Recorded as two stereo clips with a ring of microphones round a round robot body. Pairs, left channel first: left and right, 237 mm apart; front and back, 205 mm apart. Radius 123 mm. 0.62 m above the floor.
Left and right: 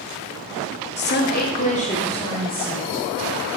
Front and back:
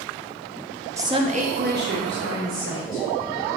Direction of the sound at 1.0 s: 110° left.